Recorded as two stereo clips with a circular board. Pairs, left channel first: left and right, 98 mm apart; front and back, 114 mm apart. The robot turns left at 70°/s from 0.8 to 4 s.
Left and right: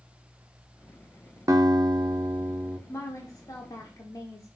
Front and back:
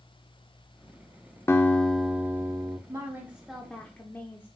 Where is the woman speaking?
135° left, 0.8 m; by 4.5 s 60° left, 0.8 m.